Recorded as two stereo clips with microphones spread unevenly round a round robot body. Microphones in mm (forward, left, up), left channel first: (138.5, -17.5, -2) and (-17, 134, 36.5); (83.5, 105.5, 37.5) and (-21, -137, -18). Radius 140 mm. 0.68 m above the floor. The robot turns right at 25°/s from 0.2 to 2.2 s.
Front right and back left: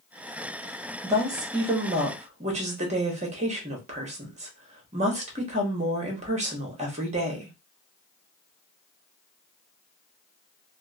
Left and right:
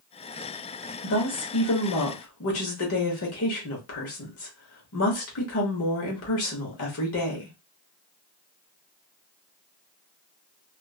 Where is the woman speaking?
50° left, 1.1 m; by 7.5 s 80° left, 1.1 m.